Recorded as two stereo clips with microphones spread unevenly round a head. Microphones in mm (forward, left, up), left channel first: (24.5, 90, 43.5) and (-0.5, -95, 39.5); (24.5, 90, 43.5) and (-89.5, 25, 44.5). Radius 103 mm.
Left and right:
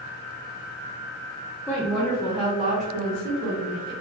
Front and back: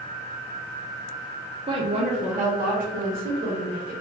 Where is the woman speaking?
160° left, 0.6 m; by 3.9 s 130° right, 1.3 m.